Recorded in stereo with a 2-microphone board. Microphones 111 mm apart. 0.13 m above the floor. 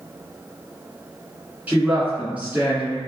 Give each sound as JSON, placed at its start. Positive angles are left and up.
{"t": 1.7, "sound": "a woman speaking", "side_deg": -15, "distance_m": 1.7}